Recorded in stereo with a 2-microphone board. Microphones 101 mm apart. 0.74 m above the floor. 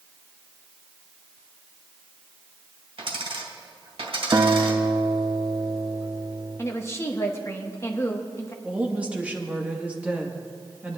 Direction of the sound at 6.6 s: 25° left (ahead or behind).